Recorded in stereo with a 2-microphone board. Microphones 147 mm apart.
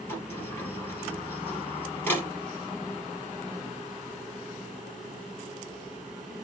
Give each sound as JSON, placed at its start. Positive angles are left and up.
{"t": 0.1, "sound": "a sliding door", "side_deg": 15, "distance_m": 3.5}